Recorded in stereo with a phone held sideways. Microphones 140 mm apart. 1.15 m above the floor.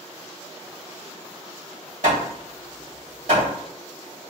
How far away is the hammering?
About 1.9 m.